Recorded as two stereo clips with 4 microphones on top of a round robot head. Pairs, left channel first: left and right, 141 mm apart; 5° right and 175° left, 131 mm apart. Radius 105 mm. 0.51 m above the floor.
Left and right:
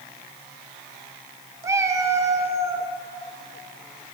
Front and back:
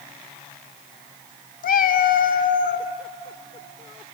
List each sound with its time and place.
1.6 s a cat meowing: 20° right, 0.6 m